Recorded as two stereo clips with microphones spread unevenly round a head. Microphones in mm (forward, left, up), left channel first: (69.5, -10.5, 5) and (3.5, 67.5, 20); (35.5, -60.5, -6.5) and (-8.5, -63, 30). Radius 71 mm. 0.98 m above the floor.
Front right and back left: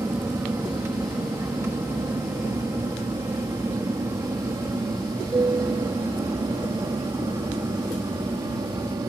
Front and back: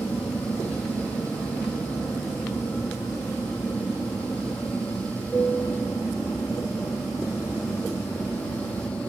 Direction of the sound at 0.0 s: 70° left.